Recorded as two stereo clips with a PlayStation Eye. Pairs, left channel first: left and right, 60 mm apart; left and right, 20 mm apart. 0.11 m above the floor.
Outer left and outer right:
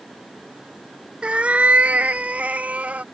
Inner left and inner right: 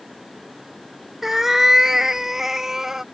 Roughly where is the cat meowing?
Centre.